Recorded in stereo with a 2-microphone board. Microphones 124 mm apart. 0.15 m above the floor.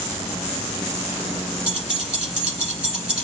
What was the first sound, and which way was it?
Keys jangling, 5° right (ahead or behind).